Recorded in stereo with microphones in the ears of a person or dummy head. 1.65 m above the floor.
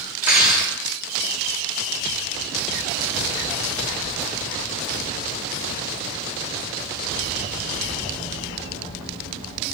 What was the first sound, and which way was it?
Cutlery clinking, 25° right (ahead or behind).